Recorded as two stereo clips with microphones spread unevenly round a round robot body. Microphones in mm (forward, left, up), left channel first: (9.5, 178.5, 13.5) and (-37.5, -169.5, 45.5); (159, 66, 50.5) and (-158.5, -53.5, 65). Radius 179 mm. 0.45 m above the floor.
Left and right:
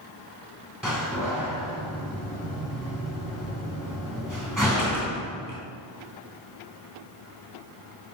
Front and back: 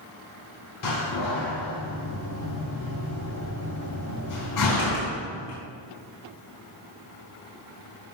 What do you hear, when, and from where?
0.8 s a door slam: 10° right, 3.5 m